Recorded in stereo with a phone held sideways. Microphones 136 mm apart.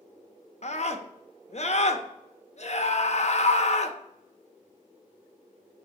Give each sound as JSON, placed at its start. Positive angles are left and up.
{"t": 0.6, "sound": "a scream", "side_deg": 50, "distance_m": 0.7}